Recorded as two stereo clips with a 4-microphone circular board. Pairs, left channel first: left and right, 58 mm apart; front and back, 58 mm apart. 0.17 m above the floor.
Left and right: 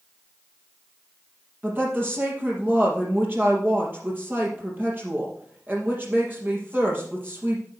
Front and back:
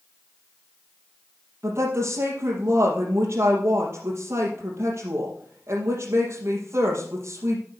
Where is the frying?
No frying in this recording.